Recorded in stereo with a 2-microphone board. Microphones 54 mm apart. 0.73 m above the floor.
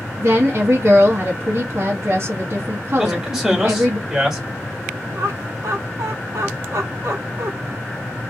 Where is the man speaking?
10° right (ahead or behind), 1.5 m.